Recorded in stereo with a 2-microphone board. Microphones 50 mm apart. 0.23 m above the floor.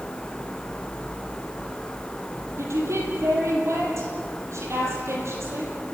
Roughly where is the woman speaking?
Right.